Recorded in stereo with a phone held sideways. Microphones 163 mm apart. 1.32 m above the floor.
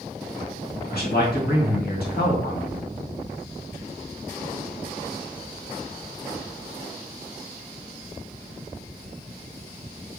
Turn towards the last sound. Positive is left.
turn(degrees=70)  # may be behind; listen again after turning